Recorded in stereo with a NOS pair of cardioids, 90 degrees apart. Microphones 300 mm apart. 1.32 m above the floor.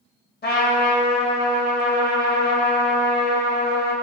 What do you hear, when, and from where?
0.4 s a trumpet: 30° left, 1.8 m